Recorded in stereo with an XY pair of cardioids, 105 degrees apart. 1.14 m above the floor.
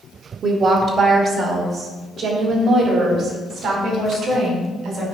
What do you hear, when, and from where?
0.4 s a woman speaking: 60° right, 1.9 m; by 5.1 s 75° right, 4.5 m